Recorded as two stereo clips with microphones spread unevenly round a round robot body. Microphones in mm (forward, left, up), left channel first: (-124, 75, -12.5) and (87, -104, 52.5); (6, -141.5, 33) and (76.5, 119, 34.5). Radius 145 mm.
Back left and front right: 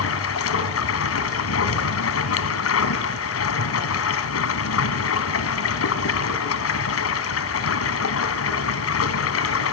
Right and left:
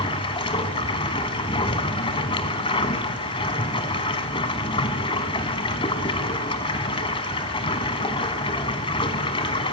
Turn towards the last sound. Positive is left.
turn(degrees=180)